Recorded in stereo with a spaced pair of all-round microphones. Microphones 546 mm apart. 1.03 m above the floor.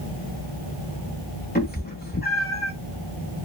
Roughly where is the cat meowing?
Centre.